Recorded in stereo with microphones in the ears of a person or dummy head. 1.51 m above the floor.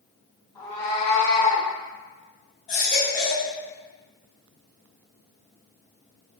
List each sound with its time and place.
0.6 s a cat meowing: 25° left (ahead or behind), 1.8 m
2.7 s a baby crying: 35° left (ahead or behind), 1.7 m